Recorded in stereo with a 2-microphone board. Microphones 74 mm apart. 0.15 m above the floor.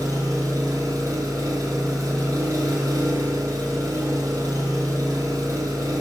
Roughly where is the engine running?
Right.